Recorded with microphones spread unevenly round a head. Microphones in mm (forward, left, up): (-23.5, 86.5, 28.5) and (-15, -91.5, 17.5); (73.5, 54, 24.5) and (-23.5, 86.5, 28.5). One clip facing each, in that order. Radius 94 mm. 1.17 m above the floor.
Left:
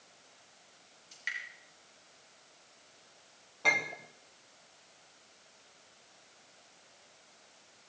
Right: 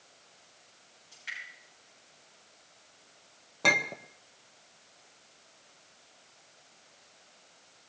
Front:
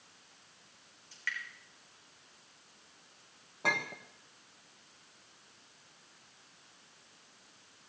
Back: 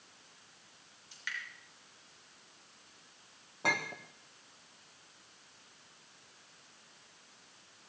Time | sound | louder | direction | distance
1.1 | dripping | left 2 dB, front 3 dB | 90° left | 6.5 m
3.6 | a clink | right 5 dB, even | 110° right | 1.0 m